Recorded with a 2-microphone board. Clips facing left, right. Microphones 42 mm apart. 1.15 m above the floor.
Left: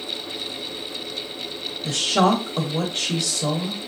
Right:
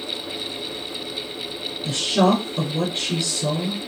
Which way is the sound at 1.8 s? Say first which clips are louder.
Even; 90° left.